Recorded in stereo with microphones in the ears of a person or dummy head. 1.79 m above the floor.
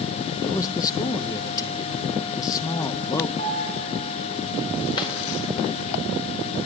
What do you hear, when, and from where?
0.4 s a man speaking: 20° left (ahead or behind), 0.8 m
3.4 s a piano: 40° left (ahead or behind), 7 m
5.0 s a drawer: 30° left (ahead or behind), 2.5 m